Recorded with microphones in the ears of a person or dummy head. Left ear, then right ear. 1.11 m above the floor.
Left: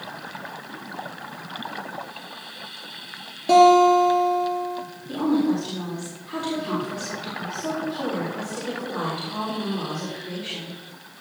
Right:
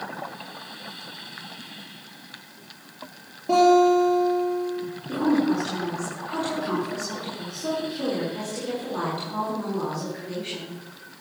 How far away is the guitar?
About 4.5 m.